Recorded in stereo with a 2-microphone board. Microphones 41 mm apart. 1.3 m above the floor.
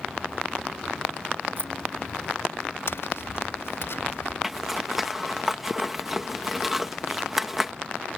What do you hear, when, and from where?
1.6 s keys jangling: 55° right (ahead or behind)
2.9 s tapping: 70° left (ahead or behind)
4.4 s a zipper: 5° right (ahead or behind)